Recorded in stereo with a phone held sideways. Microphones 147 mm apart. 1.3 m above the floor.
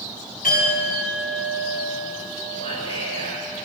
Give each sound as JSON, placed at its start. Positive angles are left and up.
{"t": 0.4, "sound": "a clink", "side_deg": 80, "distance_m": 6.5}
{"t": 2.6, "sound": "whispering", "side_deg": 45, "distance_m": 4.5}